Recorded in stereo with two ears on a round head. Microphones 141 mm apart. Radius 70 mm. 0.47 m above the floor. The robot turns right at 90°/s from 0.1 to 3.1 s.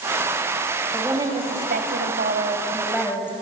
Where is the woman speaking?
Straight behind, 3 m; by 3.3 s 15° left, 3 m.